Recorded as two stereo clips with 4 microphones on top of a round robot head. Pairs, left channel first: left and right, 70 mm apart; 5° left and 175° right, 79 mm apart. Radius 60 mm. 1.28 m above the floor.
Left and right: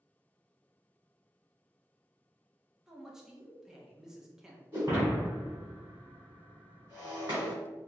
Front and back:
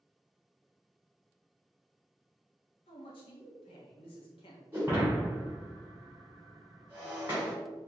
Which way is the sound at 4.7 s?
125° right.